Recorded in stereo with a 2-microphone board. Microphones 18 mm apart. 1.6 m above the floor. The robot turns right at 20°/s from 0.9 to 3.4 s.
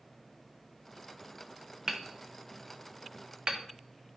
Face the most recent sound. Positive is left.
turn(degrees=-70)  # may be behind; listen again after turning